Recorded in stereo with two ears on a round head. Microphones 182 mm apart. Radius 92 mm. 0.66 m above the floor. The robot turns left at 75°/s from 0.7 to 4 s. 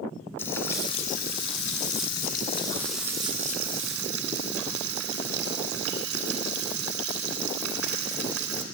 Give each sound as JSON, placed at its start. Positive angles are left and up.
{"t": 0.4, "sound": "frying", "azimuth_deg": 170, "distance_m": 1.9}